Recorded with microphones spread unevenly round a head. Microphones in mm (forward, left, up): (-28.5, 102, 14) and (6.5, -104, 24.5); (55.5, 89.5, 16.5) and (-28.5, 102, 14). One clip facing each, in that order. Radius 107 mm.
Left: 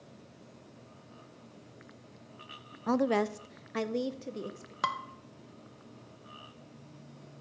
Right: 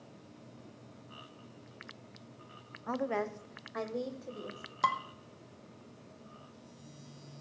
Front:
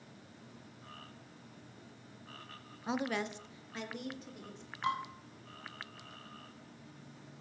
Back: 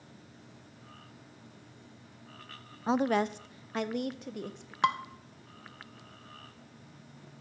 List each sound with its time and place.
2.9 s a woman speaking: 120° left, 0.6 m; by 4.7 s 155° left, 1.5 m
4.8 s dishes clattering: straight behind, 0.9 m